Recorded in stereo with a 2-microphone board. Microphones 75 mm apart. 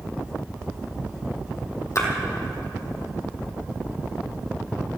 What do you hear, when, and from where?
1.9 s a splash: 40° left (ahead or behind), 2.5 m